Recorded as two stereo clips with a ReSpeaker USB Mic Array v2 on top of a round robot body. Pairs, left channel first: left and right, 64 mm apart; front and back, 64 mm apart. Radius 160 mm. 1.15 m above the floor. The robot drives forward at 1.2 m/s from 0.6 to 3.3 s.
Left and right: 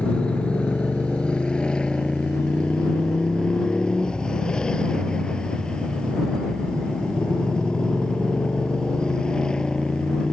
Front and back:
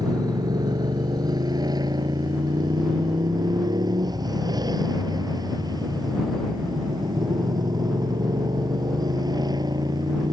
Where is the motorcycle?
165° left.